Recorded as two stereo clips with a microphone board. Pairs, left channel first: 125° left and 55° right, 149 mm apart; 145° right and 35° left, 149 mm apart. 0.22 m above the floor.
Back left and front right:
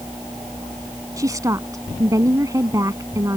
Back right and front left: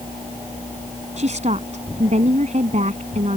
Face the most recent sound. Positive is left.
turn(degrees=10)